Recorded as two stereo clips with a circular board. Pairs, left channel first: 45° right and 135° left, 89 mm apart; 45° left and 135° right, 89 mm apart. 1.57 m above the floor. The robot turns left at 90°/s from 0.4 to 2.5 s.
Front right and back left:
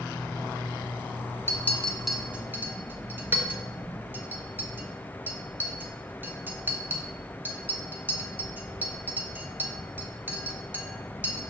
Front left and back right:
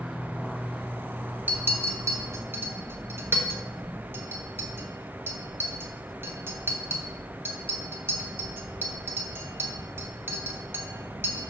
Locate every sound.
1.5 s a clink: 80° right, 1.0 m; by 11.5 s 175° right, 1.0 m